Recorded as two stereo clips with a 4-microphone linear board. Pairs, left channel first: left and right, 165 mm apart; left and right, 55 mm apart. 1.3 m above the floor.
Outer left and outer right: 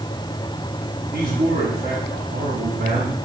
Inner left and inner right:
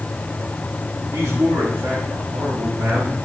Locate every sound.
1.1 s a man speaking: 75° right (ahead or behind), 4 m